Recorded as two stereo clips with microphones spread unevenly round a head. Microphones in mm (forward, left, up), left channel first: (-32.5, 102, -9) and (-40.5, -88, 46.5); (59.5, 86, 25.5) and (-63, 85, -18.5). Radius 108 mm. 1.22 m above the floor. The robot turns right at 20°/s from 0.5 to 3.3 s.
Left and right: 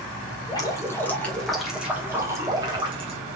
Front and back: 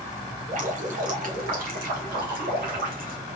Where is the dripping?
160° left, 1.4 m; by 3.2 s 145° right, 1.4 m.